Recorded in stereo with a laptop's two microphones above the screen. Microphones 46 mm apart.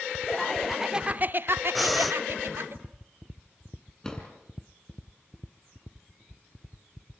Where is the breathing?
Centre (ahead or behind), 1.4 m.